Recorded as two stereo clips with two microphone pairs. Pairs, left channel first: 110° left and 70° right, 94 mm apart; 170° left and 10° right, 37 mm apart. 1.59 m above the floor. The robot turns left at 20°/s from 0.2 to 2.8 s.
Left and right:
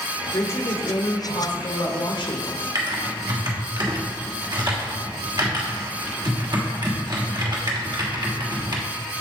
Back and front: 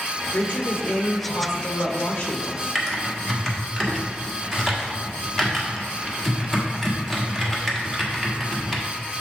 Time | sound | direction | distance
0.3 | a woman speaking | 170° left | 1.2 m
2.8 | typing on a keyboard | 110° right | 1.4 m